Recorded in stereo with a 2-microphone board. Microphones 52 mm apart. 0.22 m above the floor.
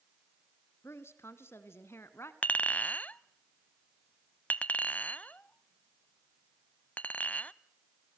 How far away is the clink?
About 0.6 m.